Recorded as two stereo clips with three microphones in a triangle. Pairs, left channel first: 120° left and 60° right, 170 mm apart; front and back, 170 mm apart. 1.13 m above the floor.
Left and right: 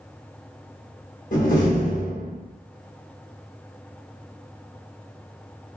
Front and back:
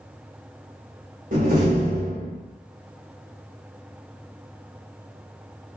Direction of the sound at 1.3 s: 155° left.